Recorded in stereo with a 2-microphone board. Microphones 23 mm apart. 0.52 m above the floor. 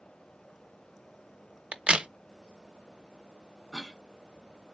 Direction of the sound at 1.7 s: 60° right (ahead or behind).